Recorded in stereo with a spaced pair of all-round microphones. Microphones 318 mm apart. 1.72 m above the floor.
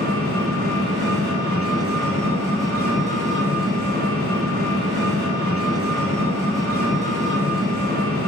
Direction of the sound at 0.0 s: 30° right (ahead or behind).